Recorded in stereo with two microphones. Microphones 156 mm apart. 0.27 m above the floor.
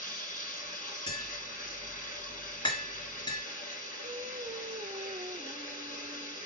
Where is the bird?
No bird in this recording.